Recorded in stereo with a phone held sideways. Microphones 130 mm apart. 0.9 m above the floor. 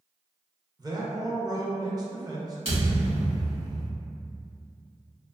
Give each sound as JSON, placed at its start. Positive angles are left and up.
{"t": 0.8, "sound": "a man speaking", "side_deg": -30, "distance_m": 0.6}
{"t": 2.6, "sound": "a thud", "side_deg": -45, "distance_m": 1.5}